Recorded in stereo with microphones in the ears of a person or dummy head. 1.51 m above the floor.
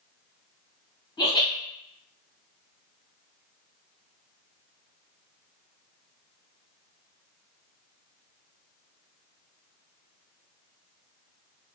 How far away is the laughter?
About 1.2 m.